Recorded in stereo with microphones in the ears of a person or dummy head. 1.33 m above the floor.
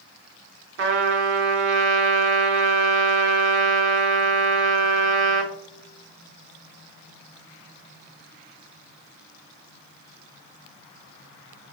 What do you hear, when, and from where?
0.8 s a trumpet: 50° right (ahead or behind), 0.7 m